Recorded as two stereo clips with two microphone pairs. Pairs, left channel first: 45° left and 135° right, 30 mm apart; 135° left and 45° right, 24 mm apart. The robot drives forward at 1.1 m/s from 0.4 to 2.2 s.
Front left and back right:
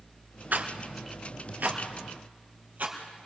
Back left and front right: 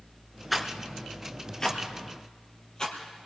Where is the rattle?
130° right, 1.4 m; by 3.3 s 160° right, 3 m.